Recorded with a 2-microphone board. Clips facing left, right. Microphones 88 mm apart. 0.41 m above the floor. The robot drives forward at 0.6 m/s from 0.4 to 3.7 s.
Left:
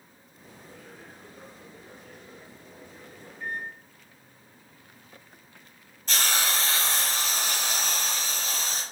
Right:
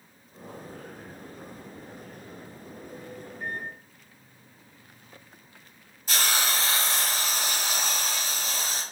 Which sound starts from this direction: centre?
A hiss, at 6.1 s.